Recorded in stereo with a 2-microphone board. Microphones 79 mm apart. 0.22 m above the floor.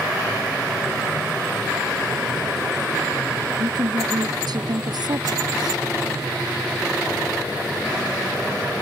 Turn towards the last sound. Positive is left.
turn(degrees=-65)  # may be behind; listen again after turning